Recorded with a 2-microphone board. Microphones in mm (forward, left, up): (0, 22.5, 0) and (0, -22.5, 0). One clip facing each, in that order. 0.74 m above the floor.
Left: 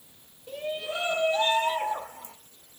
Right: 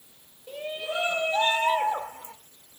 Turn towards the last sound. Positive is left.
turn(degrees=-50)  # may be behind; listen again after turning